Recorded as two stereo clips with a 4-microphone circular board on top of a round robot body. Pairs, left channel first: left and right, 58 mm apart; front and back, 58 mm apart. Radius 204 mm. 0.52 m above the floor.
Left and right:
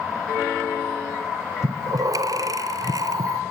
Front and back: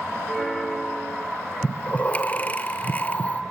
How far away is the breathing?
About 0.9 m.